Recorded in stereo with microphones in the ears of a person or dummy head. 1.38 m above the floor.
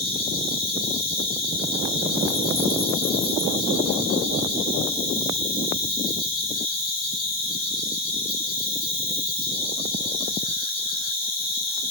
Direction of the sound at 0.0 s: 5° left (ahead or behind).